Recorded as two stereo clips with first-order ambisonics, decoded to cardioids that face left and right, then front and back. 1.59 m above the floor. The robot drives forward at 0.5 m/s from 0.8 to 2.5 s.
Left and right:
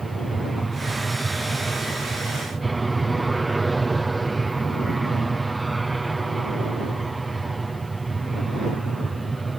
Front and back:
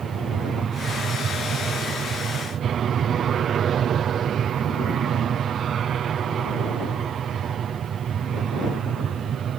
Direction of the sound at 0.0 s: 165° right.